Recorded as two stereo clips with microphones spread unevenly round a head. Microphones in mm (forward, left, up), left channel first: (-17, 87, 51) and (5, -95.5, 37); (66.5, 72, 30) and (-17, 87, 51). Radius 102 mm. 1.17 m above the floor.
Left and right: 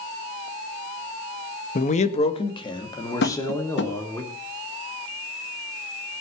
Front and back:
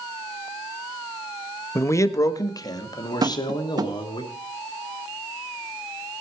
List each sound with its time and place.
1.8 s a man speaking: 45° left, 1.6 m; by 4.2 s 20° left, 4 m
3.2 s tapping: 125° left, 1.8 m